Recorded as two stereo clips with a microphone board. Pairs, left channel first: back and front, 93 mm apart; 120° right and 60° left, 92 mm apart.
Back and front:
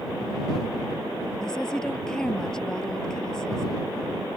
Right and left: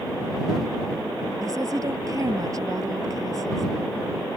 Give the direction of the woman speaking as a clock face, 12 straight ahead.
9 o'clock.